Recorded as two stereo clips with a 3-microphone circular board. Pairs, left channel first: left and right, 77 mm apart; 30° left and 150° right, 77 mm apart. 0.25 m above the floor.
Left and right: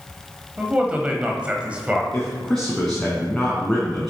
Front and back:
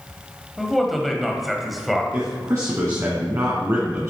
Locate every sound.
0.6 s a man speaking: 60° right, 1.3 m
2.1 s a man speaking: 170° left, 2 m